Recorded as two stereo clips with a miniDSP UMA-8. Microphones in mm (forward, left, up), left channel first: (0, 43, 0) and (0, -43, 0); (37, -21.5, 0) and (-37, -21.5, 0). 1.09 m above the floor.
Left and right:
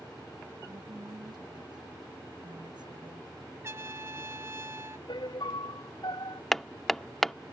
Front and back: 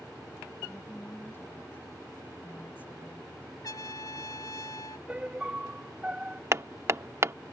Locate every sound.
0.7 s a woman speaking: 60° right
3.6 s a trumpet: 35° right
5.1 s a piano: 110° left
6.5 s hammering: 175° left